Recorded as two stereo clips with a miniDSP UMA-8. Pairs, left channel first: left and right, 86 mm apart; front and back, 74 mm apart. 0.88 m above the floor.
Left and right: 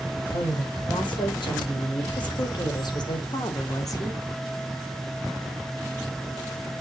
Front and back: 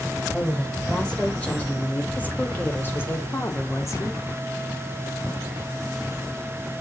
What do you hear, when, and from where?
0.3 s a woman speaking: 80° left, 4.5 m; by 4.2 s 40° left, 2 m